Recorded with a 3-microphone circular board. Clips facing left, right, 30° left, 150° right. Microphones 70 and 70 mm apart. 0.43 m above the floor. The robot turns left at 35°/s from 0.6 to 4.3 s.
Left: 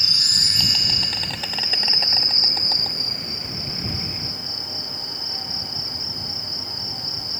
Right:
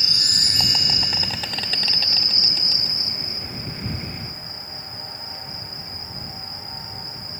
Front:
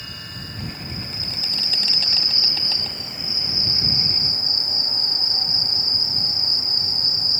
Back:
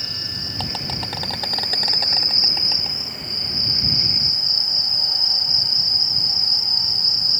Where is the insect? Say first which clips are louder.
Even, back 2 dB; 150° right; by 7.4 s 80° left.